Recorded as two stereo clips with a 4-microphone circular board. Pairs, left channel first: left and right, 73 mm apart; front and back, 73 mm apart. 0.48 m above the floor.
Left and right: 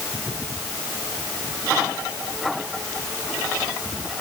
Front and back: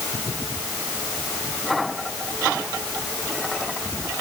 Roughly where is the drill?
No drill in this recording.